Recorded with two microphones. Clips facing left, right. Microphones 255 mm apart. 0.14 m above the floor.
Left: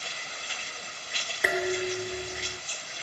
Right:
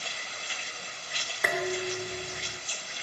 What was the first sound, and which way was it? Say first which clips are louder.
Dishes clattering: left 3 dB; 5° left (ahead or behind).